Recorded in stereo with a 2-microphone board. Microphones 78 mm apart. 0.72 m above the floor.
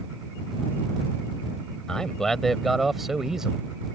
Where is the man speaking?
5° left (ahead or behind); by 3.6 s 10° right (ahead or behind).